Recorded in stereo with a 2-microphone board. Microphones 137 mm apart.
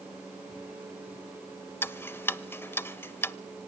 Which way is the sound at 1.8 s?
15° left (ahead or behind).